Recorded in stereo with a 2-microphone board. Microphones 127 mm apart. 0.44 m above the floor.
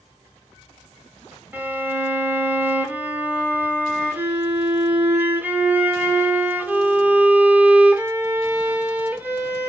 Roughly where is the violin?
Centre.